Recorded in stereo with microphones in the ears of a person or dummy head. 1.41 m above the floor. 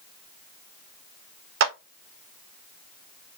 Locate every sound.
1.6 s a clap: 60° right (ahead or behind), 0.8 m